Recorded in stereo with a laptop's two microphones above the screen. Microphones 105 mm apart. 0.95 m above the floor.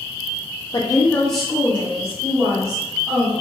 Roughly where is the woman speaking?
Left.